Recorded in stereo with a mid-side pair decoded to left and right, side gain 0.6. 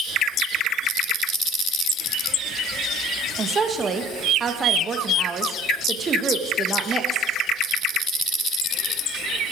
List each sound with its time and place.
3.4 s a woman speaking: 30° right, 1.6 m